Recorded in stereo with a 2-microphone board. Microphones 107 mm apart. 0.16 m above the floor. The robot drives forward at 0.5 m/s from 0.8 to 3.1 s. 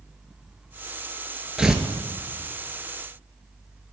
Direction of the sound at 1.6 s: 5° right (ahead or behind).